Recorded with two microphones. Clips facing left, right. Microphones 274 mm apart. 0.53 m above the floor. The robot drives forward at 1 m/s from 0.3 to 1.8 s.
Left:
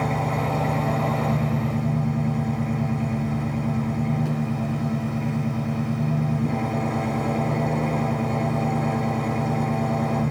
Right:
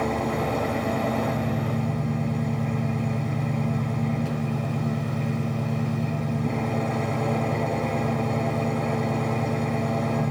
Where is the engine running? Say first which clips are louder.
Right 1 dB; 70° left (ahead or behind), 4.5 m; by 10.3 s 60° left (ahead or behind), 5 m.